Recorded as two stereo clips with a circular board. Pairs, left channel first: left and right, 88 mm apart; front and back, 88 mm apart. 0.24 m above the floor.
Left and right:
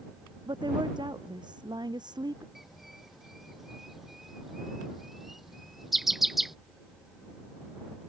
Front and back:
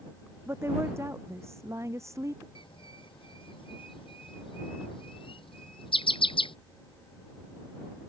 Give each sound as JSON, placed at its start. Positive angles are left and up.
{"t": 0.5, "sound": "a woman speaking", "azimuth_deg": -120}
{"t": 2.5, "sound": "a bird", "azimuth_deg": 0}